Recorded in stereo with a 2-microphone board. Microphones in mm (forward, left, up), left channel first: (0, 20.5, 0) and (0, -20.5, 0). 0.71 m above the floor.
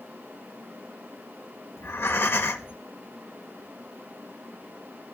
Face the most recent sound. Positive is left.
turn(degrees=70)  # may be behind; listen again after turning